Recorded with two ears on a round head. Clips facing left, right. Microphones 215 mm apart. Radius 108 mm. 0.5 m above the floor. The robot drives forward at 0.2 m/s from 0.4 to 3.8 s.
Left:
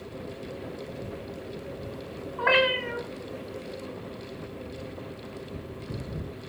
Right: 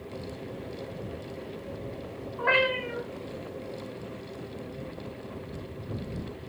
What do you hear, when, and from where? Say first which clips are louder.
2.4 s a cat meowing: left 2 dB; 65° left (ahead or behind), 1.0 m; by 3.0 s 60° left (ahead or behind), 1.1 m